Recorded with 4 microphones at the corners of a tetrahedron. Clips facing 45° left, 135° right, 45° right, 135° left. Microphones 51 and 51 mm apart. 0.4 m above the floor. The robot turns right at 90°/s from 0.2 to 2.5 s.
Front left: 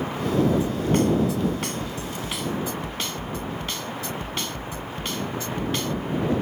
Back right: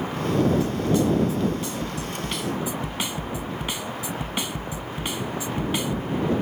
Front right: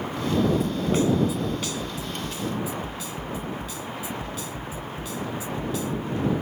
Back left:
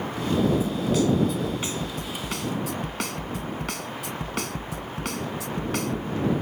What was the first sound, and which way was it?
A snare drum, 25° right.